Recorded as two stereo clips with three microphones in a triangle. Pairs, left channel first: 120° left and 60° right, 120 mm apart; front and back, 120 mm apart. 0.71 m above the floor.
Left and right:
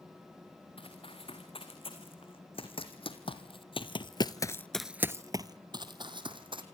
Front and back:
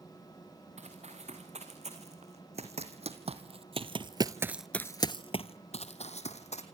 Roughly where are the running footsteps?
Behind.